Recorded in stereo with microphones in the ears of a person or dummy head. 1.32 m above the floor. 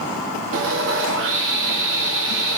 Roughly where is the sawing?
Right.